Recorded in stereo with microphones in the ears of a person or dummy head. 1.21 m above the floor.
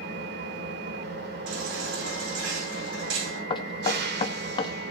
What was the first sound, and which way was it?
An engine running, 70° right (ahead or behind).